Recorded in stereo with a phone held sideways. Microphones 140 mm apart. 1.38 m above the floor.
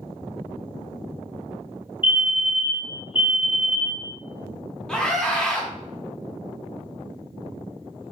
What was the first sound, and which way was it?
A fire alarm, 35° left (ahead or behind).